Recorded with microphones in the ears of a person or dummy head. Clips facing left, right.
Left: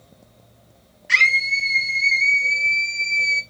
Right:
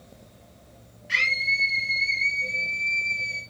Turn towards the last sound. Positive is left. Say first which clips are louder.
# left 6 dB
turn(degrees=60)  # may be behind; listen again after turning